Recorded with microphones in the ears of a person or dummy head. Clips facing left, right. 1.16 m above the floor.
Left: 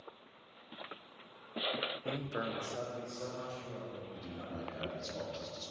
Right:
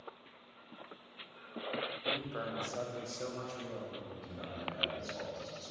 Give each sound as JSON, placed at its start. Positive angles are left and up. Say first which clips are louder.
{"t": 2.0, "sound": "a man speaking", "louder": "left 2 dB", "side_deg": 40, "distance_m": 0.9}
{"t": 4.2, "sound": "a man speaking", "louder": "left 1 dB", "side_deg": 45, "distance_m": 2.5}